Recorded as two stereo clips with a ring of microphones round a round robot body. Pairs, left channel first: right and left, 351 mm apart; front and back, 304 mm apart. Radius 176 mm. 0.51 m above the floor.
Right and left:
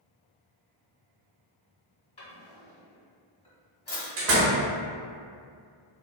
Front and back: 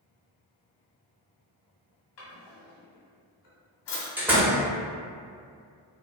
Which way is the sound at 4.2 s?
100° left.